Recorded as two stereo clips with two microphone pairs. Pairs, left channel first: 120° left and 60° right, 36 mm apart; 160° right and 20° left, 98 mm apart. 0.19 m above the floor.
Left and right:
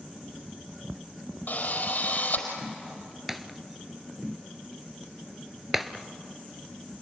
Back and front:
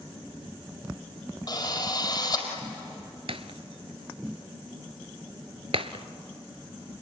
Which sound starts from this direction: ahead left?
Breaking glass, at 3.3 s.